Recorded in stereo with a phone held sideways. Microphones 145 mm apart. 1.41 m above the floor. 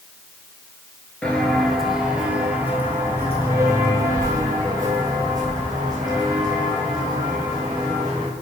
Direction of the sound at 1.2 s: 10° left (ahead or behind).